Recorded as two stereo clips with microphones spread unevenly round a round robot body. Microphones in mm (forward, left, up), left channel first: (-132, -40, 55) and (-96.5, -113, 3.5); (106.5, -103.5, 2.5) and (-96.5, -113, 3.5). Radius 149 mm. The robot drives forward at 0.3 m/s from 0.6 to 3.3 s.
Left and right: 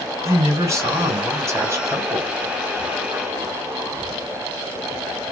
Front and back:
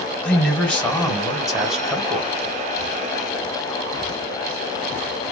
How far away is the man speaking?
About 2.5 m.